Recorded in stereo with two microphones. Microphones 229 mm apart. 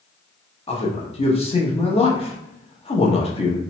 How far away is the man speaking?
About 0.6 m.